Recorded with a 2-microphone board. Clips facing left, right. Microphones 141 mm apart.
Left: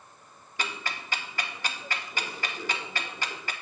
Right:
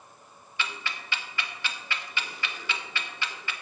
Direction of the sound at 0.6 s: 40° left (ahead or behind).